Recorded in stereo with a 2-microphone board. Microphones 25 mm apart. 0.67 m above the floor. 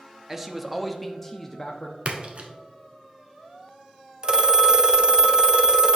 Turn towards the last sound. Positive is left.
turn(degrees=-30)  # may be behind; listen again after turning